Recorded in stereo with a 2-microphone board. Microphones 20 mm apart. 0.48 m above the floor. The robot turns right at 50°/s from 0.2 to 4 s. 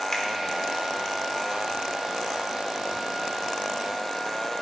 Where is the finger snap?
35° left (ahead or behind), 1.3 m.